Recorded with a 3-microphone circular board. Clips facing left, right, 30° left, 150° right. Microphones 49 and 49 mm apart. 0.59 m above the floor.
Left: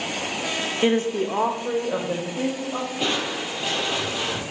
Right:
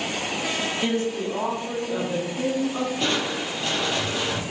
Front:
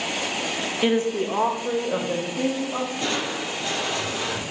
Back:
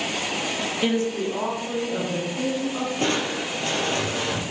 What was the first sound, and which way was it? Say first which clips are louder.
A woman speaking: left 7 dB, front 2 dB; 100° left.